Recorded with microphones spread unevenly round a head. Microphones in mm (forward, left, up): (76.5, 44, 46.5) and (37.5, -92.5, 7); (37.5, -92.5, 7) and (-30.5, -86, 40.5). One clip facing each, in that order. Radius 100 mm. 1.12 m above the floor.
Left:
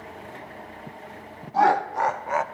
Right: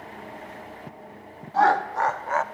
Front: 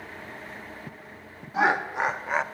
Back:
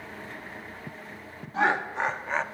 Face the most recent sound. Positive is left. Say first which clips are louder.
# even, front 2 dB
turn(degrees=-15)